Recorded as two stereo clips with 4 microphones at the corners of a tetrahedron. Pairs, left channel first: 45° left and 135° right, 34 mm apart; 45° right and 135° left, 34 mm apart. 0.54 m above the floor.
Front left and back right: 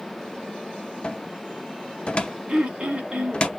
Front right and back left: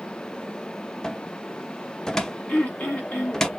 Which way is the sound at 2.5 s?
80° right.